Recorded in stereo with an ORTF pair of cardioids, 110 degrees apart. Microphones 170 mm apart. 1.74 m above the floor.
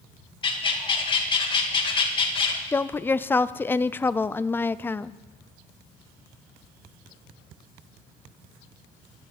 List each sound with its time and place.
0.4 s a bird: 30° left, 2.5 m
2.7 s a woman speaking: 15° left, 0.6 m